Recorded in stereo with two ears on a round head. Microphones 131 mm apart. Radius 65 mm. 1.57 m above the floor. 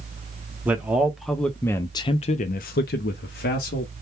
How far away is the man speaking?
About 1.0 m.